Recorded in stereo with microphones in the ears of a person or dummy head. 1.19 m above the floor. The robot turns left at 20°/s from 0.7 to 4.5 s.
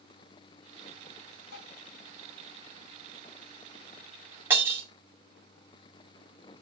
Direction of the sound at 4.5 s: 15° right (ahead or behind).